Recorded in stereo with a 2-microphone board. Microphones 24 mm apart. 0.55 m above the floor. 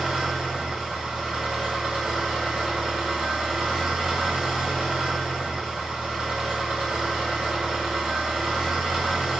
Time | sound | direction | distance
0.0 | an engine running | 45° right (ahead or behind) | 0.9 m